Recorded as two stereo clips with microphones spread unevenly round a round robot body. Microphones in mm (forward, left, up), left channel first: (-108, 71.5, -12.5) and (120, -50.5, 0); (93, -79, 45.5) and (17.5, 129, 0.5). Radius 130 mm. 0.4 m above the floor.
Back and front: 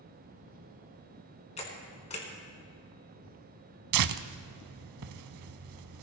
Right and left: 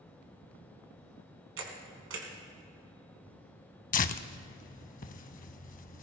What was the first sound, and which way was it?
A camera shutter, 85° left.